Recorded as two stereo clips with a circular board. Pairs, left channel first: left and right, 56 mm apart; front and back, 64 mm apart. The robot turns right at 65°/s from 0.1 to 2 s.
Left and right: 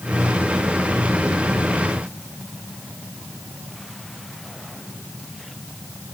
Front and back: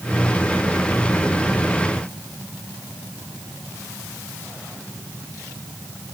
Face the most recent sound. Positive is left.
No sound to turn to.